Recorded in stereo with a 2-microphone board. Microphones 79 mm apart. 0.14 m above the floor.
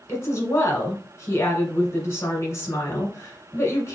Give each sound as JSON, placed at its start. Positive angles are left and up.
{"t": 0.1, "sound": "a woman speaking", "side_deg": 35, "distance_m": 1.5}